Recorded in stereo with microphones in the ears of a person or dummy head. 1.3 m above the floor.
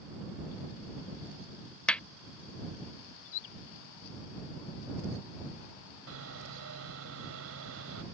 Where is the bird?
70° left (ahead or behind).